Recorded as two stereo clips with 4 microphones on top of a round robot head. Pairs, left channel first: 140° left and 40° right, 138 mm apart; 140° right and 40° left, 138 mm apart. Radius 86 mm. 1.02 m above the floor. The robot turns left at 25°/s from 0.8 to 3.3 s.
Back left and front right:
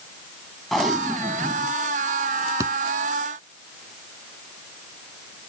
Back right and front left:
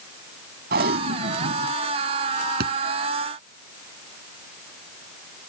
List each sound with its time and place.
0.7 s tape being pulled: 50° left; by 1.7 s 25° left
2.6 s a thud: 30° left; by 2.7 s 25° left